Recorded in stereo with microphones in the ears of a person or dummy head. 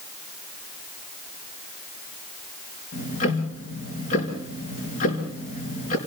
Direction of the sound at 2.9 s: 45° left (ahead or behind).